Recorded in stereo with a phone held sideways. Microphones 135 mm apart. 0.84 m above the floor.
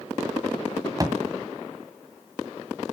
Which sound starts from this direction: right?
A thud, at 1.0 s.